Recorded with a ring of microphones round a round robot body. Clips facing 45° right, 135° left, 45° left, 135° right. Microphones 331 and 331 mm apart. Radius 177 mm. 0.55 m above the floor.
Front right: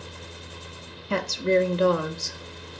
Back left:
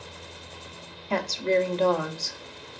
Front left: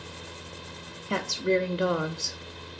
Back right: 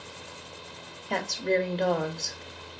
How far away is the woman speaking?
About 0.7 m.